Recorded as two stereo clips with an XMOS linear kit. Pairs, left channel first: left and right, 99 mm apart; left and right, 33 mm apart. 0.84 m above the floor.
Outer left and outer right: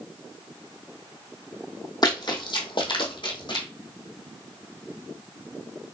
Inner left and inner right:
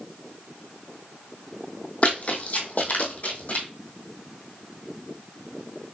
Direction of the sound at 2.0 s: 45° left (ahead or behind).